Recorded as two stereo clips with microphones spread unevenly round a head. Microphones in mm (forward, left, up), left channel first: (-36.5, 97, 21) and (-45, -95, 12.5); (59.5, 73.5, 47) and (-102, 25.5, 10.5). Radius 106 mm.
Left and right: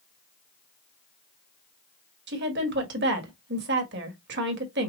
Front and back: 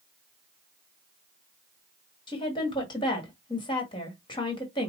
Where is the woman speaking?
55° right, 1.4 m.